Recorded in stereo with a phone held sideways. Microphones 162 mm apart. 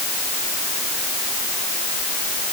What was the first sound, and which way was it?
Only background noise.